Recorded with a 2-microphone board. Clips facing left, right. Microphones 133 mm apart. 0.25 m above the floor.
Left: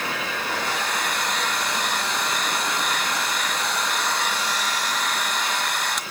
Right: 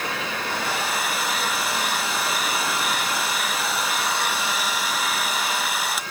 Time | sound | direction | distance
0.5 | a hair dryer | 5° right (ahead or behind) | 1.2 m